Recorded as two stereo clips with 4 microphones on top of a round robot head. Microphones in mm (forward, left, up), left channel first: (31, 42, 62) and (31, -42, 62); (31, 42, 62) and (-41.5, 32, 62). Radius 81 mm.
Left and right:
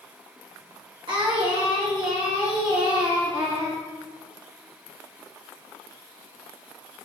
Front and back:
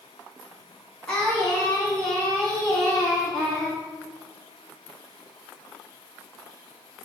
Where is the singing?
65° right, 1.9 m.